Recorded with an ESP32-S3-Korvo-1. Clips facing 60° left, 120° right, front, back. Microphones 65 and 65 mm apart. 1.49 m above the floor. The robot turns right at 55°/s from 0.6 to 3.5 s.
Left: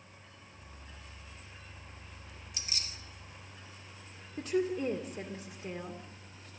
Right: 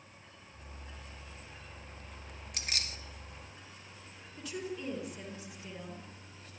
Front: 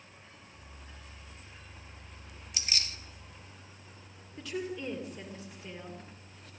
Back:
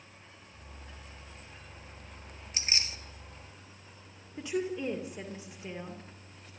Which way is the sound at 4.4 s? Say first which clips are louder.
Left 9 dB, back 4 dB; 110° left.